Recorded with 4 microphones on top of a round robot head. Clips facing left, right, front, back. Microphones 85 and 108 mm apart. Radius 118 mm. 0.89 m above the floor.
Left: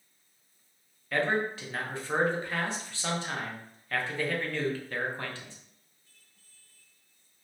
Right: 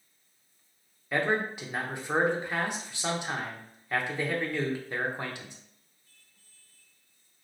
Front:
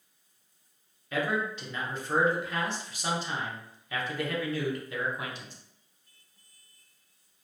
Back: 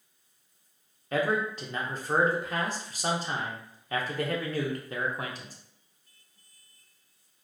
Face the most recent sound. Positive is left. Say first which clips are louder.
# even, back 3 dB
turn(degrees=-160)